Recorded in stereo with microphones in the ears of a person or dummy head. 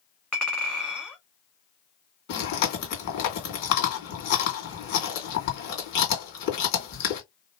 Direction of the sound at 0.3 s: 10° left (ahead or behind).